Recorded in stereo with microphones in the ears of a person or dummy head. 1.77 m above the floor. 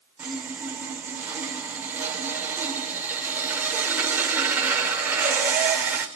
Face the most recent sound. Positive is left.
turn(degrees=-10)  # may be behind; listen again after turning